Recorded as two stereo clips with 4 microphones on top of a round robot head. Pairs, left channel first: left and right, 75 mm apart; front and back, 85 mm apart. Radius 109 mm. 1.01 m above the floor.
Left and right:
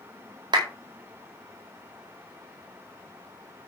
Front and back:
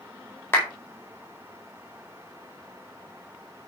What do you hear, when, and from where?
0.5 s a clap: 65° right, 4.5 m